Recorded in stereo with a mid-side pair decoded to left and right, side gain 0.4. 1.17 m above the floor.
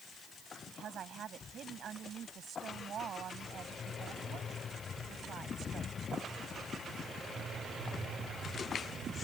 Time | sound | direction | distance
0.7 | a woman speaking | 60° right | ?